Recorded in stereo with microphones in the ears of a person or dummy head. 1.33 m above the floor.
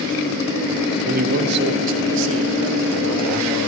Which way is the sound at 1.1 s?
45° right (ahead or behind).